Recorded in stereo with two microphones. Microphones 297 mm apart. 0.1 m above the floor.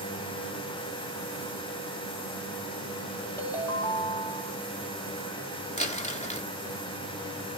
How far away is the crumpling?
About 0.8 m.